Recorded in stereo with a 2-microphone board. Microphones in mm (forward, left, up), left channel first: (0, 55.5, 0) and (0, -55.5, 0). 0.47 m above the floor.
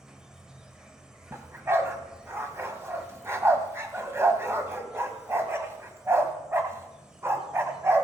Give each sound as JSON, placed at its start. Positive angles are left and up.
{"t": 0.0, "sound": "an insect", "side_deg": -5, "distance_m": 1.0}
{"t": 1.3, "sound": "a dog barking", "side_deg": -25, "distance_m": 1.0}